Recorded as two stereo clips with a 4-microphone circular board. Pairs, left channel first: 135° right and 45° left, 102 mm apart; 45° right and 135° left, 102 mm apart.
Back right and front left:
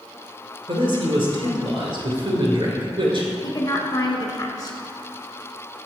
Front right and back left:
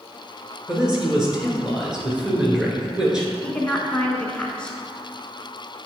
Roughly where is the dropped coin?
No dropped coin in this recording.